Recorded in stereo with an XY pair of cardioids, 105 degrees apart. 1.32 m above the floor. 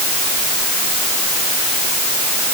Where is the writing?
No writing in this recording.